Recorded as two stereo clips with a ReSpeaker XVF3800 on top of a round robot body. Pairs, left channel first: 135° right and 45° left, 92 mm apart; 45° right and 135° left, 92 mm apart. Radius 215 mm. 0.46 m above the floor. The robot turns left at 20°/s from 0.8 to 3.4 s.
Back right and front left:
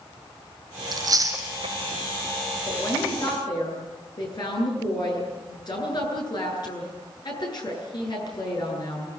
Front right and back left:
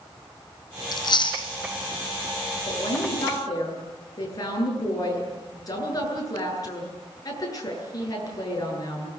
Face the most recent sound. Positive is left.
turn(degrees=-95)